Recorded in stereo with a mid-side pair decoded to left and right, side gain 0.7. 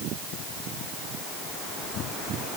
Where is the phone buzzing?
I don't hear a phone buzzing.